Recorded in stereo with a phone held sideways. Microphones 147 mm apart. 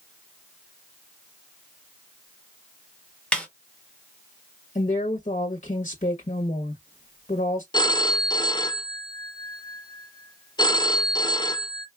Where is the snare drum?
10° left (ahead or behind), 1.1 m.